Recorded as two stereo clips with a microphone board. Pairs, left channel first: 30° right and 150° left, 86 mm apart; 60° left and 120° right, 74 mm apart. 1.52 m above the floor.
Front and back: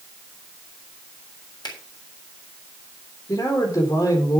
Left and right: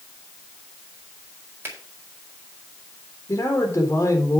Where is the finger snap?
60° right, 4.5 m.